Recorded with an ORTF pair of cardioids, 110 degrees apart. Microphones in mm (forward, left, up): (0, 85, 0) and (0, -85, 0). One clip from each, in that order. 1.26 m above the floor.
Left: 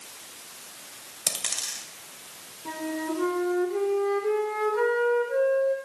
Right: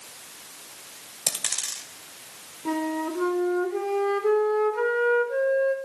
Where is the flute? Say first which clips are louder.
Right 4 dB; 30° right, 2.5 m.